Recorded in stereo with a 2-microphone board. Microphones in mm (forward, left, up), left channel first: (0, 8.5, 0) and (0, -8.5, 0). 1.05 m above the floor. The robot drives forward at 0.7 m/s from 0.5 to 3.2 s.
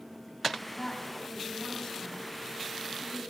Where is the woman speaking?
20° left (ahead or behind), 6.5 m; by 3.2 s 15° left (ahead or behind), 8 m.